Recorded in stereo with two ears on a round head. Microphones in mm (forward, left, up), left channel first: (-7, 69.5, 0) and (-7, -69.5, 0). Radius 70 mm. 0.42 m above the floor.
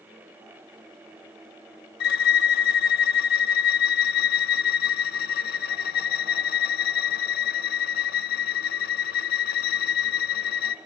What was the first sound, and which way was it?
A violin, 70° left (ahead or behind).